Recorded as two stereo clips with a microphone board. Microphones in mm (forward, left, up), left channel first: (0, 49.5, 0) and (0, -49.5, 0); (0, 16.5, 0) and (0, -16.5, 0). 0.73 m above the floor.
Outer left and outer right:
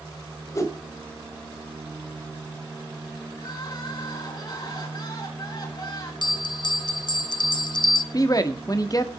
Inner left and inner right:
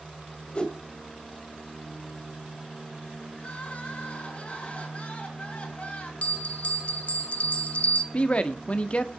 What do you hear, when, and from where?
0.6 s a whoosh: 30° left (ahead or behind), 1.8 m
3.3 s crying: 45° left (ahead or behind), 4 m
6.2 s a bell: 45° left (ahead or behind), 0.9 m
8.1 s a man speaking: 40° left (ahead or behind), 1.3 m